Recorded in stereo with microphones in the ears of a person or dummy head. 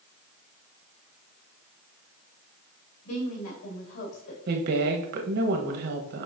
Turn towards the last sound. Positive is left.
turn(degrees=-70)  # may be behind; listen again after turning